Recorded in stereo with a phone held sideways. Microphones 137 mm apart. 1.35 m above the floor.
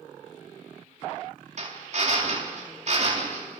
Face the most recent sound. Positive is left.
turn(degrees=-55)  # may be behind; listen again after turning